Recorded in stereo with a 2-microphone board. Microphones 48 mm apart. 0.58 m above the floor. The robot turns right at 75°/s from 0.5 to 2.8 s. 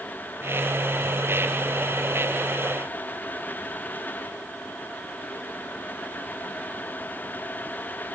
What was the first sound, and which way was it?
Only background noise.